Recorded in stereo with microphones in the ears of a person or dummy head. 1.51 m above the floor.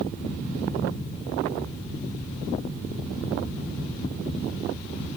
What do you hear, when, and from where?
0.0 s a fan: 10° left (ahead or behind), 1.5 m